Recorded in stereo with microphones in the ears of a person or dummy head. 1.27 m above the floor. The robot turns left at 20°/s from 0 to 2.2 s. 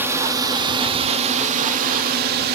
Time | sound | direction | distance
0.0 | a drone | 10° right | ?